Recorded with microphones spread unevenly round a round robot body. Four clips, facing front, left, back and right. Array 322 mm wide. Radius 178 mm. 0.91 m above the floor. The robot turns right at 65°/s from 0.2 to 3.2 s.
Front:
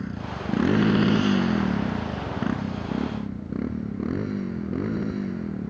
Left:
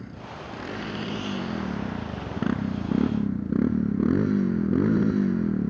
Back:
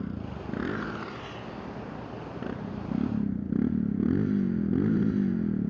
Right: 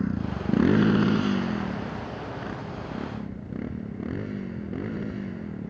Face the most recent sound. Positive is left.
turn(degrees=115)